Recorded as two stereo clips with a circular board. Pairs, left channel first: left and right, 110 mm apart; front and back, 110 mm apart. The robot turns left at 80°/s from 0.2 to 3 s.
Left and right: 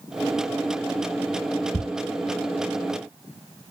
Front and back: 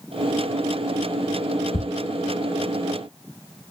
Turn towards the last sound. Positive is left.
turn(degrees=-100)